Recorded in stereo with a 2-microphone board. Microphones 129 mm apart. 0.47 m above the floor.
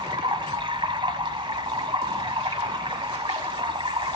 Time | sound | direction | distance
0.0 | running water | 45° right (ahead or behind) | 1.6 m